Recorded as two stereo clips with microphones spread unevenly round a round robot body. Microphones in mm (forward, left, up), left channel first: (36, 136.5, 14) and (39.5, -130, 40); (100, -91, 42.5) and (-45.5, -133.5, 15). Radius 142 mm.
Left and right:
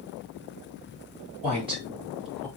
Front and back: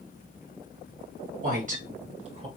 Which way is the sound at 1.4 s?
160° right.